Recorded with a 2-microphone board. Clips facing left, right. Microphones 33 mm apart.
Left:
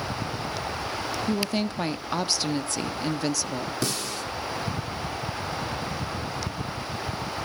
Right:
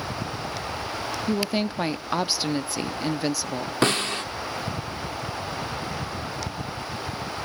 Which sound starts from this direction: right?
A snare drum, at 3.8 s.